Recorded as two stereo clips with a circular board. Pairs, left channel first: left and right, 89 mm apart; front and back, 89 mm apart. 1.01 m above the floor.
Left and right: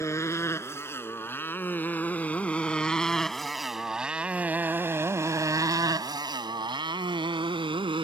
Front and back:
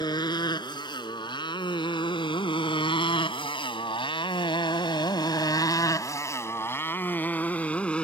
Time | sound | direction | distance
0.0 | a motorcycle | 35° left | ?